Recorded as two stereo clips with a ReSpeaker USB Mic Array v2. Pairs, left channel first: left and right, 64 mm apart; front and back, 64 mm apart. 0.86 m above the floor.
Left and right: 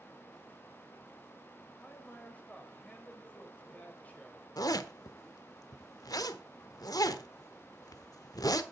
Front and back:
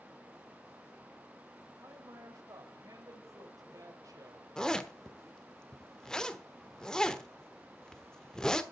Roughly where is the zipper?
Left.